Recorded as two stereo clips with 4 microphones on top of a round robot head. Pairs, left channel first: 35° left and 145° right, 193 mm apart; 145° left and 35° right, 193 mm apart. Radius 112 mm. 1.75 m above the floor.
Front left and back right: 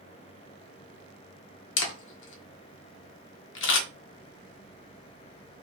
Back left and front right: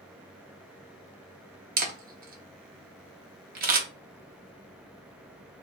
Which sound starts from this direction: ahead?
A camera shutter, at 1.8 s.